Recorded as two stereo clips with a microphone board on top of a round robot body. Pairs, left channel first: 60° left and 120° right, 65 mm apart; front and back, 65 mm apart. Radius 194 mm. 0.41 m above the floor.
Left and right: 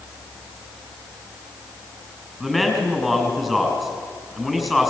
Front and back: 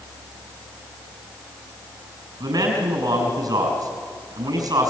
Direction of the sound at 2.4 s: 150° left.